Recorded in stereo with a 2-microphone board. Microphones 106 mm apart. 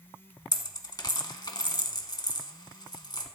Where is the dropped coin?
40° left (ahead or behind), 1.2 m.